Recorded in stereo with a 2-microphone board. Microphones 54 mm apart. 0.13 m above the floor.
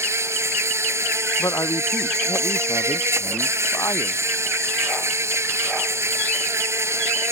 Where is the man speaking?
80° left.